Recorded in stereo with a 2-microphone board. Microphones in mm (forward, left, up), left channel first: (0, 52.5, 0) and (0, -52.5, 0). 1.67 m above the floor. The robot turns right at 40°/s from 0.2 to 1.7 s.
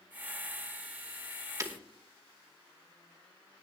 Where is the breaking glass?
35° right (ahead or behind), 1.5 m.